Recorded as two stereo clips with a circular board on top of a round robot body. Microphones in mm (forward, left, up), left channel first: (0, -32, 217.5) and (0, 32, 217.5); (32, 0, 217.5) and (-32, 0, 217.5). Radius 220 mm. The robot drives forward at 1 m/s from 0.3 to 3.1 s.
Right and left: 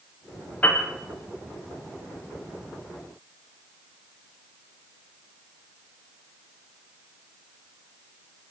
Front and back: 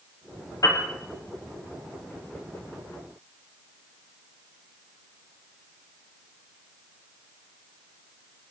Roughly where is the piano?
Ahead right.